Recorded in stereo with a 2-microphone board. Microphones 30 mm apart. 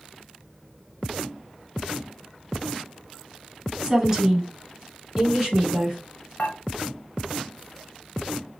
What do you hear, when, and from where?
3.8 s a woman speaking: 15° right (ahead or behind), 1.3 m
6.4 s dishes clattering: 45° left (ahead or behind), 1.3 m